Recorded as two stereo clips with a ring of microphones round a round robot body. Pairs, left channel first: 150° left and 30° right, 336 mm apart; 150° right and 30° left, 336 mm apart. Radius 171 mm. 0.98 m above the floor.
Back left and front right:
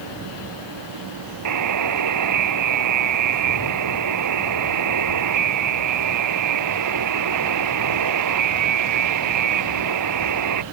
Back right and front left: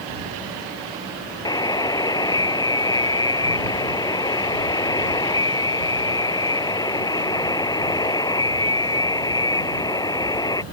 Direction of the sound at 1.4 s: 70° right.